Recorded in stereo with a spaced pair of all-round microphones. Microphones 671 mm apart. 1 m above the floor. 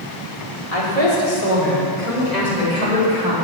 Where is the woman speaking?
55° left (ahead or behind), 2.5 m; by 3.3 s 75° left (ahead or behind), 5 m.